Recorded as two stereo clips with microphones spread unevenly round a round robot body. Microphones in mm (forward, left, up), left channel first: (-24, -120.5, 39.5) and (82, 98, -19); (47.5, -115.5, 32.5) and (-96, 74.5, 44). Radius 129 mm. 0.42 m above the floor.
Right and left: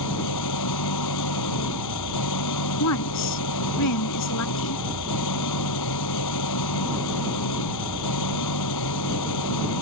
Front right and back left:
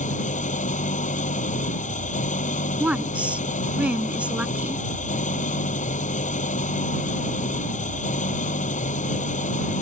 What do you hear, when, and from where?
0.0 s an engine running: 115° right
2.8 s a woman speaking: 150° right